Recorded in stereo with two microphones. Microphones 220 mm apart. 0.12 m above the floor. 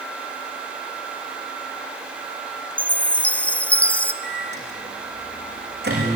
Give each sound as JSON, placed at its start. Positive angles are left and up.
{"t": 2.8, "sound": "a chime", "side_deg": 5, "distance_m": 0.8}
{"t": 4.2, "sound": "a microwave", "side_deg": -50, "distance_m": 7.0}